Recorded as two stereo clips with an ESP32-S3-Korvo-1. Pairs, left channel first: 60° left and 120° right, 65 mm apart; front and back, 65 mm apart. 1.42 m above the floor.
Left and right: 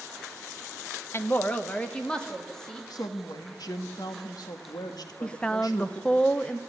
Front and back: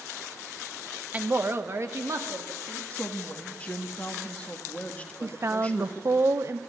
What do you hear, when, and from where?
1.1 s a woman speaking: 110° left, 0.9 m; by 2.8 s 140° left, 3 m
2.9 s a woman speaking: 70° left, 1.9 m
5.2 s a woman speaking: 135° left, 0.8 m